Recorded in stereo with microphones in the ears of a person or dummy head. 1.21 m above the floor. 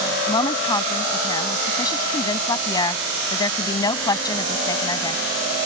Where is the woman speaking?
20° left (ahead or behind).